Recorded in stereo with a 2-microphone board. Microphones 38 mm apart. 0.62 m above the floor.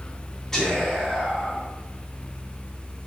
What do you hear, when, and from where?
0.5 s whispering: 10° left (ahead or behind), 1.3 m